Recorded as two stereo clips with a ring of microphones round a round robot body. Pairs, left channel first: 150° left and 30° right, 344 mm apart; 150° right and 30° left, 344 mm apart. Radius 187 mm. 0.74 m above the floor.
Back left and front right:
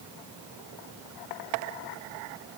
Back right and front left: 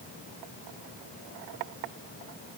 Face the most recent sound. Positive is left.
No sound to turn to.